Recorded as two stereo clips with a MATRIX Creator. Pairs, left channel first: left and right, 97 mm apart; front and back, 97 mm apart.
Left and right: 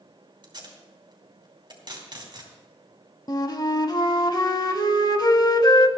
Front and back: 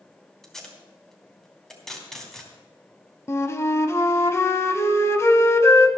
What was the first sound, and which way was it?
Tape being pulled, 85° right.